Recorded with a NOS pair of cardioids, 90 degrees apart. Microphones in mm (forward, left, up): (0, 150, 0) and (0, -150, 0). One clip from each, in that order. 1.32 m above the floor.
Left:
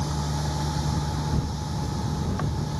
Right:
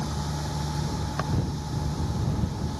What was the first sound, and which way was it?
A machine running, 25° left.